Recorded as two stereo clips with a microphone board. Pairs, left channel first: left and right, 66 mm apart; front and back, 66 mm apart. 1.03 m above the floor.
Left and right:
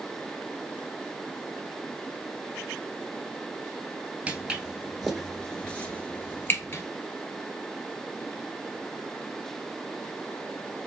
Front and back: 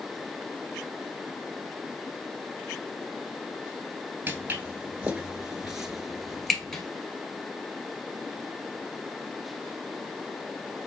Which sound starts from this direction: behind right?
Footsteps, at 4.3 s.